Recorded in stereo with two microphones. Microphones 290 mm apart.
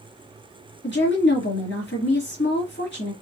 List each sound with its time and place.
0.8 s a woman speaking: 40° left (ahead or behind), 2.0 m